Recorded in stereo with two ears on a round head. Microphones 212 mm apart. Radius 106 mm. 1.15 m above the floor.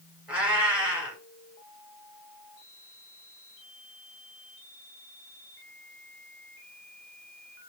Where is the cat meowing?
5° right (ahead or behind), 2 m.